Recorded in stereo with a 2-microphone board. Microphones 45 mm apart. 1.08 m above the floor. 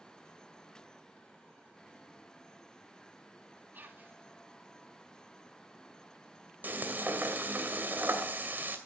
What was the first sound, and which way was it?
Whispering, 45° right (ahead or behind).